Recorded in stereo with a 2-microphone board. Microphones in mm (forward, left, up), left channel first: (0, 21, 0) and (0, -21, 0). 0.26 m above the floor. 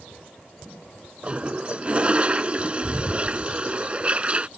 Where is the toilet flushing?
25° right (ahead or behind).